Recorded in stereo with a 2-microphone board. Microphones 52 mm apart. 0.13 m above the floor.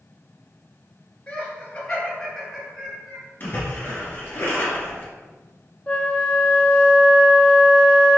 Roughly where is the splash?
Left.